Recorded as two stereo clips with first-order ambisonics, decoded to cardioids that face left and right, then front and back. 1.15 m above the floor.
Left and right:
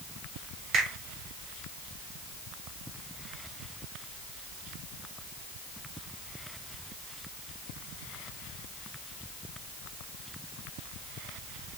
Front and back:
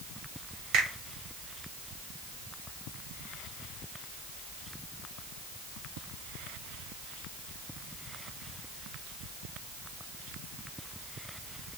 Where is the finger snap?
145° right, 1.1 m.